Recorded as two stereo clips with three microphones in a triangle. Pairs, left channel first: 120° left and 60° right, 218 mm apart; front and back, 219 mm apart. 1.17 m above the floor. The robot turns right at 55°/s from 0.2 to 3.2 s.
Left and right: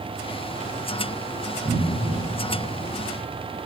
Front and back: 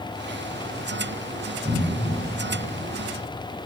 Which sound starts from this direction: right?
A cupboard door, at 1.6 s.